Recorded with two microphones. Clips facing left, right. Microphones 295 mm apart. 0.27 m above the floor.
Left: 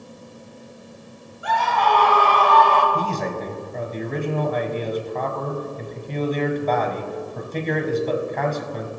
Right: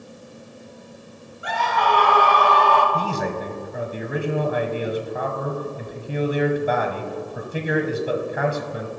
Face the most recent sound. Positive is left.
turn(degrees=-10)  # may be behind; listen again after turning